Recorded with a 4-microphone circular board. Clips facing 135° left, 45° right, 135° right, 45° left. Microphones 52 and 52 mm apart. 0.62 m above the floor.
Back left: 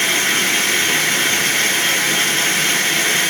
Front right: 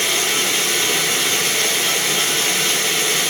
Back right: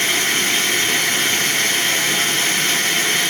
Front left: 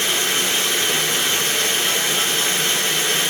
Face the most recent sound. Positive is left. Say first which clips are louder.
# back left 3 dB, back right 2 dB
turn(degrees=-175)